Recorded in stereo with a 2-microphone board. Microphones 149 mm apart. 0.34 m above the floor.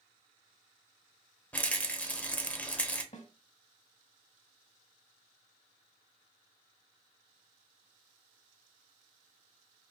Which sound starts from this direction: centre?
A rattle, at 1.5 s.